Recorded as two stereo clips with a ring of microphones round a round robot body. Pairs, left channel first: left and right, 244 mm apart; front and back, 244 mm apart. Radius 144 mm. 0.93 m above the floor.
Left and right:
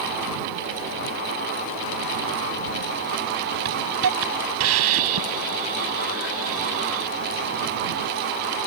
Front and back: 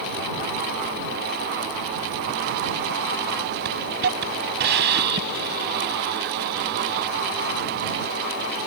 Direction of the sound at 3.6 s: 125° right.